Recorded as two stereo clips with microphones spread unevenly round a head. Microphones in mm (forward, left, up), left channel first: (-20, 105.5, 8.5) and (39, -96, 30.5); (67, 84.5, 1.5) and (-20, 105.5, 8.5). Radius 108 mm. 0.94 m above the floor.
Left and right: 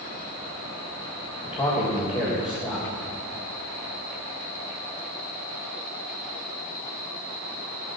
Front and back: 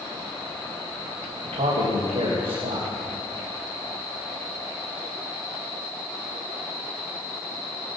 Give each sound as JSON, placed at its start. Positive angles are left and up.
{"t": 1.4, "sound": "a man speaking", "azimuth_deg": 175, "distance_m": 3.5}